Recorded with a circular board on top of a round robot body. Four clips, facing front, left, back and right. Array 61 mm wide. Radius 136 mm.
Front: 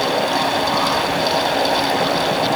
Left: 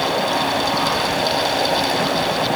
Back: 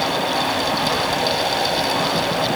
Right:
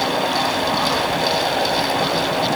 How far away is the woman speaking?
No woman speaking in this recording.